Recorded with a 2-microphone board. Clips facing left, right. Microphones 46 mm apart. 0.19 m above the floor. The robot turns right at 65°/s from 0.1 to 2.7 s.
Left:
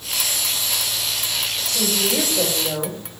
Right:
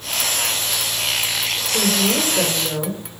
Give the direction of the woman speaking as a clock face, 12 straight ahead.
2 o'clock.